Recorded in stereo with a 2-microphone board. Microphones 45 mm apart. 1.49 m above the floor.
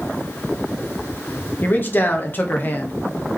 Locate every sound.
1.6 s a man speaking: 45° left (ahead or behind), 1.0 m